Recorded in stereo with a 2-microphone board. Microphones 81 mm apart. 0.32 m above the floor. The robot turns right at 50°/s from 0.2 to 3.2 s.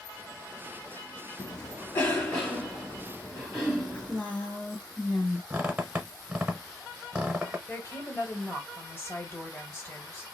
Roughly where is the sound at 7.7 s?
Left.